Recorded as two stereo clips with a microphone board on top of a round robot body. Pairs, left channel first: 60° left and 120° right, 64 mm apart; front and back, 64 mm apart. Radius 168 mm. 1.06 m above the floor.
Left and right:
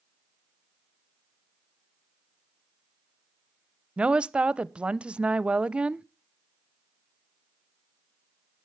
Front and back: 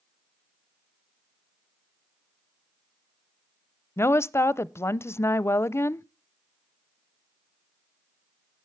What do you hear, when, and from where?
4.0 s a woman speaking: 45° right, 0.7 m